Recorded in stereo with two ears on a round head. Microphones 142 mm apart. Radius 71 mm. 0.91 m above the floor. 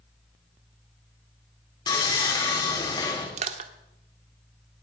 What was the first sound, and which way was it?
Sawing, 25° left (ahead or behind).